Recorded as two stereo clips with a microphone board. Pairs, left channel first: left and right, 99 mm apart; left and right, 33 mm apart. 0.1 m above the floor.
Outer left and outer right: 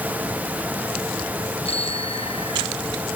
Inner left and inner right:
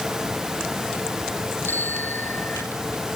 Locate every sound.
1.6 s a bicycle bell: 85° left